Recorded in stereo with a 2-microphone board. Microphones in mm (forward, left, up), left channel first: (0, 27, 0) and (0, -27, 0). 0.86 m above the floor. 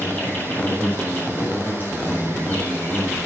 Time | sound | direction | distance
0.0 | an insect | 35° left (ahead or behind) | 8 m